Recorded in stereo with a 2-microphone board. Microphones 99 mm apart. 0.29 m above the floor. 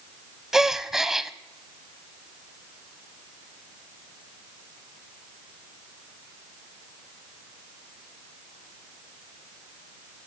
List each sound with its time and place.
0.5 s a gasp: 5° right (ahead or behind), 0.6 m